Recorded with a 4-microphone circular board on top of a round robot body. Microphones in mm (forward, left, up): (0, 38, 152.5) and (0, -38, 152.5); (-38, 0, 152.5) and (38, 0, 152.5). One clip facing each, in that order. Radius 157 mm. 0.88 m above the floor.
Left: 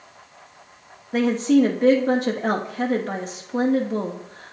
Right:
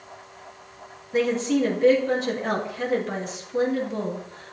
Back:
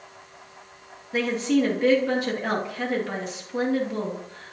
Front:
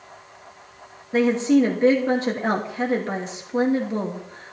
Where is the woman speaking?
60° left, 2.5 m.